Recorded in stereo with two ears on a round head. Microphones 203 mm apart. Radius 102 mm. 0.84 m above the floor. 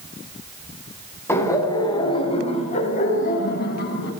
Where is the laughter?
10° left (ahead or behind), 6.5 m; by 4.1 s 45° left (ahead or behind), 7 m.